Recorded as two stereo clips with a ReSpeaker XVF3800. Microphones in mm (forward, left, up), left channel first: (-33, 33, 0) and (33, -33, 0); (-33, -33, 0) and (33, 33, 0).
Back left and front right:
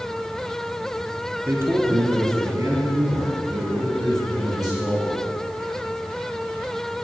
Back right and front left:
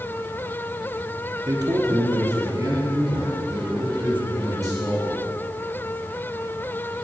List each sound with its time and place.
1.5 s a man speaking: 15° left, 1.1 m; by 5.2 s 5° right, 3.5 m